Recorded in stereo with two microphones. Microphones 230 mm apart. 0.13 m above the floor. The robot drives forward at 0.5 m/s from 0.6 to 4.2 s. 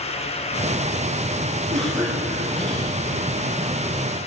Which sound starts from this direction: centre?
A cough, at 1.7 s.